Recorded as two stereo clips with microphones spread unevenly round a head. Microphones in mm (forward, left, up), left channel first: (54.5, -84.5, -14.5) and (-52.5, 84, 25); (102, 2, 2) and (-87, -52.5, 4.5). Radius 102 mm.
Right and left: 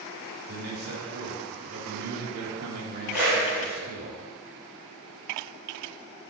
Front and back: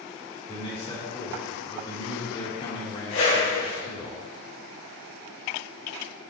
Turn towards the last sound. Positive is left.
turn(degrees=45)